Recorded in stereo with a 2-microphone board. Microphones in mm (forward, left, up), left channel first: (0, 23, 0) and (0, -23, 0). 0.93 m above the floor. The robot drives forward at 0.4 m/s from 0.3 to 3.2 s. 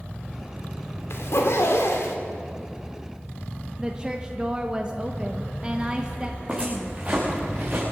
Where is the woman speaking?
20° right (ahead or behind), 0.9 m.